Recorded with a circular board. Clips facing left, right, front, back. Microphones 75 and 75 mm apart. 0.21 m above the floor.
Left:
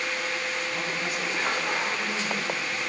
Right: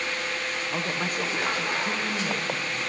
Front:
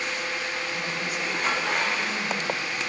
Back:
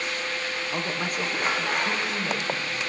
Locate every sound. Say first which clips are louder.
0.7 s a woman speaking: right 1 dB, back 2 dB; 135° right, 7.5 m